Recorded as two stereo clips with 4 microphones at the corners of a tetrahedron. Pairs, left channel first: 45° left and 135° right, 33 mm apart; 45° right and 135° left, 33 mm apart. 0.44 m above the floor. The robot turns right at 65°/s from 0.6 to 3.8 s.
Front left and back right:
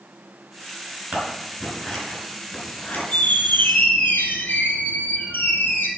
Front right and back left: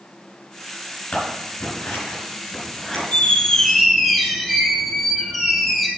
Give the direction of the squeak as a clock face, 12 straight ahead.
12 o'clock.